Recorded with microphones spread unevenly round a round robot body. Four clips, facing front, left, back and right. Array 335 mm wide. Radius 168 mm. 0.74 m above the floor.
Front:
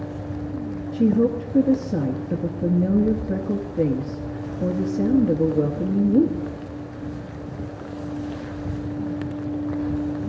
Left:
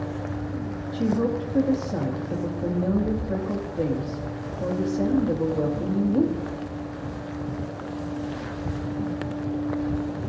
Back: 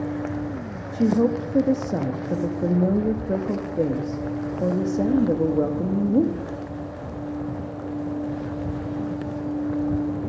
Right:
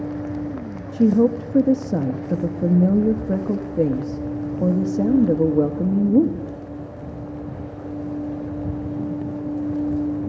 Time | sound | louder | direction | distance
0.9 | a woman speaking | right 8 dB, front 1 dB | 65° right | 0.9 m